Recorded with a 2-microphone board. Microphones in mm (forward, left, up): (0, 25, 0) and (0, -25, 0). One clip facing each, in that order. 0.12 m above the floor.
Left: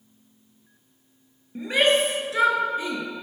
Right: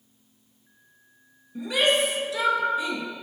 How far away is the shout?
About 1.8 m.